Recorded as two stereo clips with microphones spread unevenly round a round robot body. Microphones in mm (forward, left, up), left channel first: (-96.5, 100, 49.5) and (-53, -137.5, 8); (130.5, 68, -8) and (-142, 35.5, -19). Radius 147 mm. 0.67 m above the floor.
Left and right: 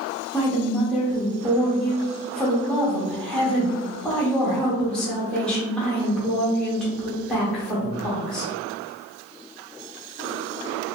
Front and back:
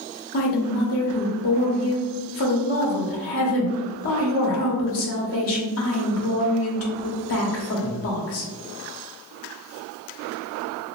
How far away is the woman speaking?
About 0.8 m.